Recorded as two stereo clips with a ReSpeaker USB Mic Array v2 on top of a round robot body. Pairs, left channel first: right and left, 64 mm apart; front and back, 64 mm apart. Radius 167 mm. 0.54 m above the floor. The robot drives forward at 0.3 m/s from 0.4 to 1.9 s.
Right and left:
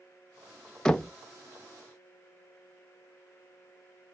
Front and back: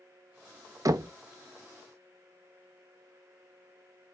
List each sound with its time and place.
0.8 s knocking: 165° right, 0.6 m; by 1.1 s 170° right, 0.6 m